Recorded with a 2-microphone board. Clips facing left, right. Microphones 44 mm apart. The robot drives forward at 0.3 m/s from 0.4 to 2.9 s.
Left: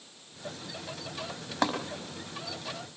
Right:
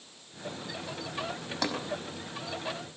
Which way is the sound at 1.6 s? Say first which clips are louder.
Left 4 dB; 40° left (ahead or behind).